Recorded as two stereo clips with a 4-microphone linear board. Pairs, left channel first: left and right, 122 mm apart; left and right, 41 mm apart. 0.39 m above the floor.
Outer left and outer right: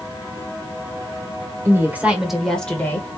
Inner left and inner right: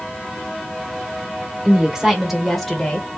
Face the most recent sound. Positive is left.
turn(degrees=20)  # may be behind; listen again after turning